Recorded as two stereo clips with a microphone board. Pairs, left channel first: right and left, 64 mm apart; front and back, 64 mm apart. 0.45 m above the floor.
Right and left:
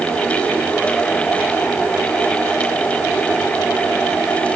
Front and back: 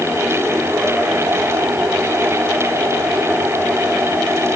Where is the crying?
No crying in this recording.